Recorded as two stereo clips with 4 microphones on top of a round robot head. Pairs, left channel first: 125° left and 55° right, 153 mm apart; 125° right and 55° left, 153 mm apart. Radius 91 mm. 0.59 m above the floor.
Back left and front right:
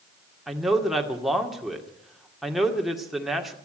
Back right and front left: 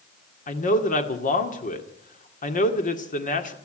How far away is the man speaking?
About 2 m.